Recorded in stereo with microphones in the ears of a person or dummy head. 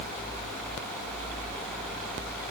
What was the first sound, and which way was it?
Only background noise.